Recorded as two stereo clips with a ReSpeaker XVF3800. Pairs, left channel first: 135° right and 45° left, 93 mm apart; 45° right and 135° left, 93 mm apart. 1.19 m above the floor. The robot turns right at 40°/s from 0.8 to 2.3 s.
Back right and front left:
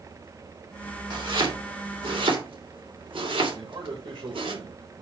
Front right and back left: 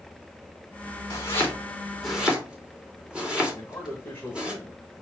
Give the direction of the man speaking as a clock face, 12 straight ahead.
11 o'clock.